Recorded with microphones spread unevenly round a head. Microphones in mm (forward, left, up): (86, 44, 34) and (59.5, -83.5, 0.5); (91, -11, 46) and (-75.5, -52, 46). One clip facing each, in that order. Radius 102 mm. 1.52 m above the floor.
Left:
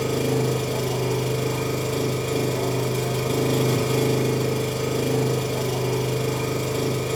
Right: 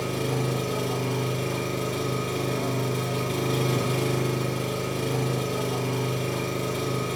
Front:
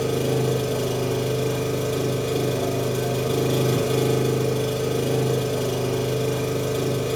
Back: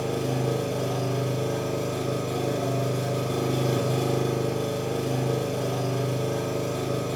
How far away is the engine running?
About 2.5 m.